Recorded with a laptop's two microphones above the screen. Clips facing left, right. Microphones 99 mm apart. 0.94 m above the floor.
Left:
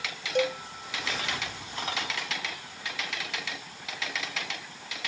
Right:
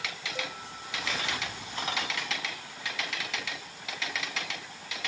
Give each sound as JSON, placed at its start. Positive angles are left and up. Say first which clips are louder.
{"t": 0.3, "sound": "a cowbell", "louder": "left 14 dB", "side_deg": 80}